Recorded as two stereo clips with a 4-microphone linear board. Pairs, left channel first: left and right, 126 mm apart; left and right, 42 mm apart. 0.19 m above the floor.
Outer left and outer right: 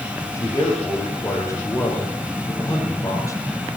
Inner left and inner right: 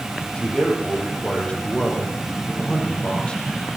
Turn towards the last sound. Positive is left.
turn(degrees=25)  # may be behind; listen again after turning